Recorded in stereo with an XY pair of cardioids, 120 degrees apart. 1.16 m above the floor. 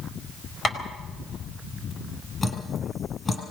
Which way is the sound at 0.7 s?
35° left.